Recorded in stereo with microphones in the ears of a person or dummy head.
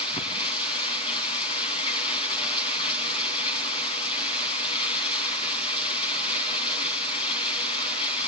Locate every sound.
0.0 s running water: 30° left (ahead or behind), 2.5 m